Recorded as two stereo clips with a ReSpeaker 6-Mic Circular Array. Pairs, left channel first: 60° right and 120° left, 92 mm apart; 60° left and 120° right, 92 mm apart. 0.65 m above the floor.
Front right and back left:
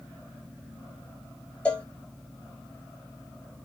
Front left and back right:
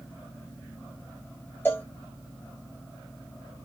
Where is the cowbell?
5° left, 0.8 m.